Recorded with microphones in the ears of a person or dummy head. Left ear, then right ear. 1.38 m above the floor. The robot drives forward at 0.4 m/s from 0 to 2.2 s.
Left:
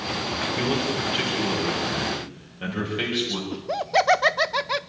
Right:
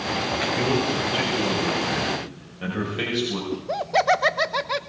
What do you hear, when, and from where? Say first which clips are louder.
0.6 s a man speaking: right 2 dB; 5° left (ahead or behind), 5 m
3.5 s laughter: even; 10° left (ahead or behind), 0.6 m